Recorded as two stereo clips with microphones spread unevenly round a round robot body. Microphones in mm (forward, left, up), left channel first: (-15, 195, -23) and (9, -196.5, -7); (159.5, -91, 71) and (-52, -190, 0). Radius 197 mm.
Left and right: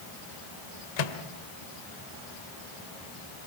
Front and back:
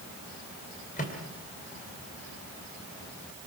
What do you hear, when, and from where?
1.0 s a microwave: 100° left, 2.0 m